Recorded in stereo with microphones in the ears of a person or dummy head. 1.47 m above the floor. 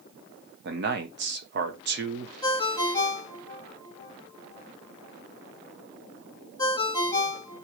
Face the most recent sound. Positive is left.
turn(degrees=25)  # may be behind; listen again after turning